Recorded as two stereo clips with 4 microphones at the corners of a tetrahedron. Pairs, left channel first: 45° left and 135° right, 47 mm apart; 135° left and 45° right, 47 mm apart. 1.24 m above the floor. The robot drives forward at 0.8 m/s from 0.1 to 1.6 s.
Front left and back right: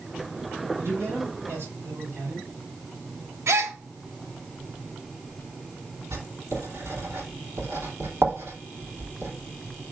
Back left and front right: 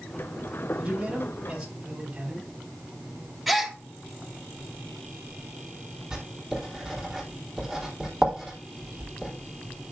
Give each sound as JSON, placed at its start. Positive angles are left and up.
{"t": 0.8, "sound": "a man speaking", "azimuth_deg": -110, "distance_m": 5.5}
{"t": 3.5, "sound": "a gasp", "azimuth_deg": -135, "distance_m": 1.0}
{"t": 6.1, "sound": "writing", "azimuth_deg": -130, "distance_m": 2.5}